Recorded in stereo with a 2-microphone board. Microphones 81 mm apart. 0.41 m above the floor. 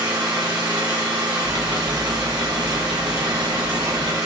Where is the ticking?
70° right (ahead or behind), 0.6 m.